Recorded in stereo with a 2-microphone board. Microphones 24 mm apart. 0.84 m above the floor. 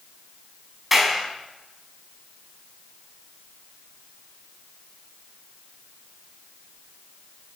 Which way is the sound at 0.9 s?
10° right (ahead or behind).